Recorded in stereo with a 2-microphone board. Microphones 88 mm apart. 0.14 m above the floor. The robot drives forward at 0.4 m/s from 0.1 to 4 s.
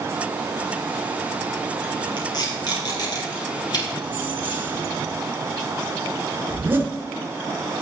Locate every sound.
2.2 s tape being pulled: 50° left (ahead or behind), 4 m; by 3.9 s 45° left (ahead or behind), 4 m
4.0 s keys jangling: 20° right (ahead or behind), 1.3 m
6.5 s a zipper: 25° right (ahead or behind), 1.5 m